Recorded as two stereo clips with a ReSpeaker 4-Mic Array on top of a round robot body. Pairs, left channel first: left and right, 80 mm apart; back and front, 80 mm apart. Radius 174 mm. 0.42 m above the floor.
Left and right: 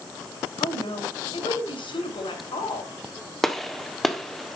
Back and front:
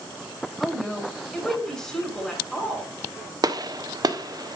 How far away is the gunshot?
About 1.6 m.